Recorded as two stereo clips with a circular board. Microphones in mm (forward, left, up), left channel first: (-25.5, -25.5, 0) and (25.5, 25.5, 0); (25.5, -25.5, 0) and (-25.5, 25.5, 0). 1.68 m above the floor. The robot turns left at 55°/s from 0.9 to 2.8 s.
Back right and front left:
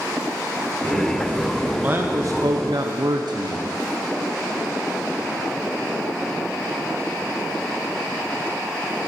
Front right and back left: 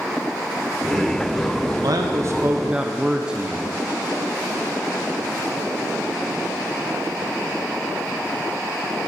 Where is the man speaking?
110° left, 0.9 m; by 3.7 s 55° left, 0.9 m.